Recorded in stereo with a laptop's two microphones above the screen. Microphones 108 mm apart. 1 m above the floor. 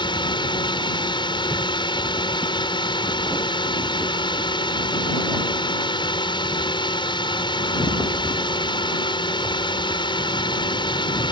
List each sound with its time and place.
0.0 s a drone: 50° left (ahead or behind)